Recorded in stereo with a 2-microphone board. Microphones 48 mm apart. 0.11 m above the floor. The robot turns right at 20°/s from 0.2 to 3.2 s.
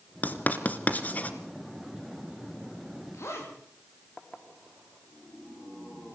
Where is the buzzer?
I don't hear a buzzer.